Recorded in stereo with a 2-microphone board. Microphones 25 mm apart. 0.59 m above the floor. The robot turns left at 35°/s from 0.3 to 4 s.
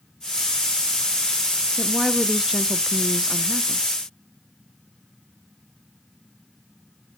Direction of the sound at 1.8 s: 20° right (ahead or behind).